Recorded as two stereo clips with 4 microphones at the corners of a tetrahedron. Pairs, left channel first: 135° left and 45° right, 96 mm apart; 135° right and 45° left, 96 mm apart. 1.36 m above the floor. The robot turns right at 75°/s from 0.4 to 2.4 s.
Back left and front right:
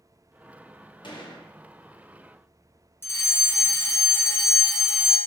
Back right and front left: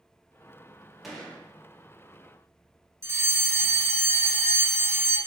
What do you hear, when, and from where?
1.0 s a gunshot: 135° left, 0.9 m; by 1.5 s 165° left, 0.9 m
3.0 s a fire alarm: 85° left, 0.8 m